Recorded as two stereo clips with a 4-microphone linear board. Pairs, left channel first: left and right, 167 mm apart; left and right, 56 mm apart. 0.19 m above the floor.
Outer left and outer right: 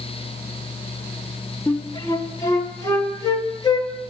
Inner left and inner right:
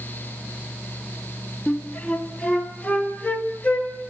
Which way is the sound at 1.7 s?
25° left (ahead or behind).